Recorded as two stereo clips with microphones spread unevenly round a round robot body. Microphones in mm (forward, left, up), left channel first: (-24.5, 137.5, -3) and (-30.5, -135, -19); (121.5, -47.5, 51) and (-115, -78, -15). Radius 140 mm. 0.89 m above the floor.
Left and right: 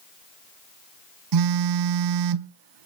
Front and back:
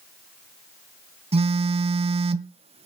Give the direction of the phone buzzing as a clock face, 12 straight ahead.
3 o'clock.